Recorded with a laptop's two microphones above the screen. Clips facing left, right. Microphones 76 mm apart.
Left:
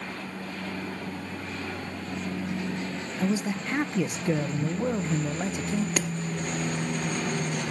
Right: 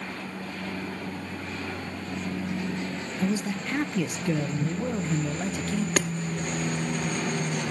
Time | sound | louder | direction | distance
3.2 | a man speaking | left 1 dB | 20° left (ahead or behind) | 0.6 m
6.0 | hammering | right 3 dB | 65° right (ahead or behind) | 0.9 m